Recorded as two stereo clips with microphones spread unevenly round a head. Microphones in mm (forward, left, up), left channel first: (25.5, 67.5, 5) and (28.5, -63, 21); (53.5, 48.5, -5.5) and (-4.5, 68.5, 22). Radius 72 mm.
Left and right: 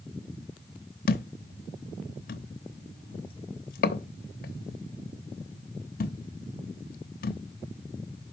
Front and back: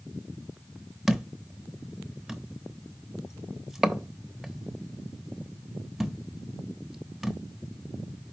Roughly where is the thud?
Left.